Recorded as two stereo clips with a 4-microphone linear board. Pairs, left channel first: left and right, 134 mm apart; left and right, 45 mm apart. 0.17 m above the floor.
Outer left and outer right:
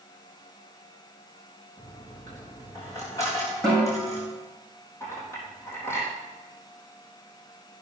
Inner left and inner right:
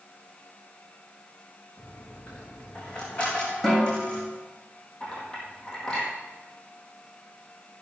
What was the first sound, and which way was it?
A dropped coin, 25° left (ahead or behind).